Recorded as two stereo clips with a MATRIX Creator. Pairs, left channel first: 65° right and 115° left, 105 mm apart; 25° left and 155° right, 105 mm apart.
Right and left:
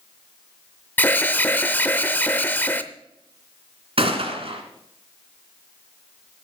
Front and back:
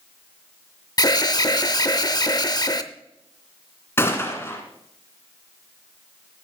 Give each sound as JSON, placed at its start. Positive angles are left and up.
{"t": 1.0, "sound": "an alarm", "azimuth_deg": -5, "distance_m": 0.6}
{"t": 4.0, "sound": "a gunshot", "azimuth_deg": 90, "distance_m": 1.6}